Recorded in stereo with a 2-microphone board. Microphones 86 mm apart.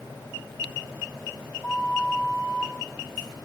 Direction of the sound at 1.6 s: 50° left (ahead or behind).